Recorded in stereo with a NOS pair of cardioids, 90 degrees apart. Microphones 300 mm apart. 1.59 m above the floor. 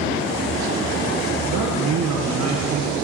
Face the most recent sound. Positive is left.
turn(degrees=-55)